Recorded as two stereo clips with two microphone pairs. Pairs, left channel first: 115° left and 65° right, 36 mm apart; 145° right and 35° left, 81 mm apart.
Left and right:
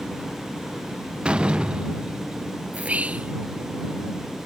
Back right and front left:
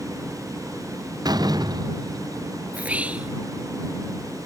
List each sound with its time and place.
1.2 s a door slam: straight ahead
2.7 s whispering: 30° right